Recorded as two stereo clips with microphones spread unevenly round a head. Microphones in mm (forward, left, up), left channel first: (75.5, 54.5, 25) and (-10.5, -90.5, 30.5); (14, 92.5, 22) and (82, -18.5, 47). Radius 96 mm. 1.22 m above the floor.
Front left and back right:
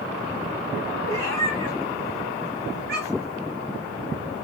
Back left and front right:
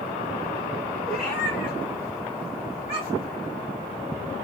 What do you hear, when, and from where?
1.1 s a cat meowing: 165° right, 3 m; by 3.4 s straight behind, 4 m